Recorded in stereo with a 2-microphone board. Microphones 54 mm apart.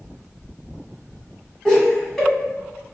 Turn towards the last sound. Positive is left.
turn(degrees=10)  # may be behind; listen again after turning